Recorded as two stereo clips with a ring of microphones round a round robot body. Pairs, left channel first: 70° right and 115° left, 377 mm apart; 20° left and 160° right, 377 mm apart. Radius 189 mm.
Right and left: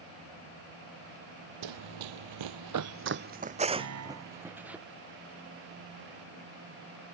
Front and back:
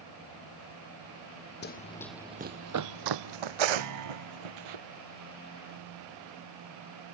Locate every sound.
1.6 s running footsteps: 85° left; by 4.8 s 160° right
3.8 s a piano: 160° left